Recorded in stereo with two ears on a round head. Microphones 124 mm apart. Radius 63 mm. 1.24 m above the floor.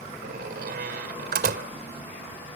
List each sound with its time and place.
0.2 s a door slam: 80° right